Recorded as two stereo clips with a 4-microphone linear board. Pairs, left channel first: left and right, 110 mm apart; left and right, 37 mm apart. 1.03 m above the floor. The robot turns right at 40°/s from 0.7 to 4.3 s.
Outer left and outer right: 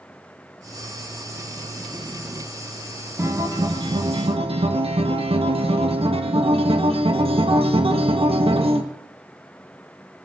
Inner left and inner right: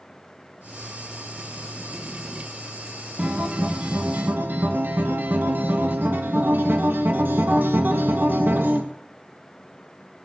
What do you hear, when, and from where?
3.2 s a guitar: 150° right, 1.5 m; by 8.8 s 105° right, 1.5 m